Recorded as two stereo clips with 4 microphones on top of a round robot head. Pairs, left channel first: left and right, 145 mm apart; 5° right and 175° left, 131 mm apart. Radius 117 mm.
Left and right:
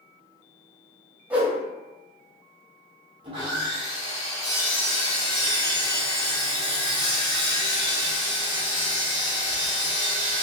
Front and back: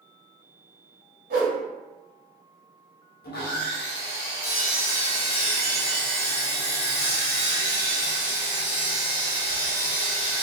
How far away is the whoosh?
About 0.7 m.